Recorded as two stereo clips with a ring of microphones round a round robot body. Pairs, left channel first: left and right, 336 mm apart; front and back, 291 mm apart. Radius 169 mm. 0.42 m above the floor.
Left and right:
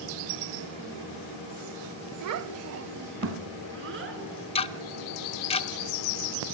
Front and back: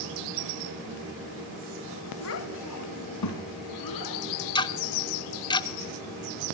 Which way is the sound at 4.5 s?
50° left.